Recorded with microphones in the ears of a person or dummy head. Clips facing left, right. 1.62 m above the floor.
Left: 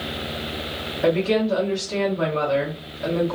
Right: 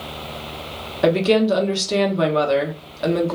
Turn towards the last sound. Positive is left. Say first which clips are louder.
# right 4 dB
turn(degrees=-70)  # may be behind; listen again after turning